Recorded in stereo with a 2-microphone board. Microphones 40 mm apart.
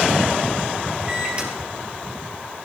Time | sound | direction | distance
1.1 | a microwave | 30° right (ahead or behind) | 3 m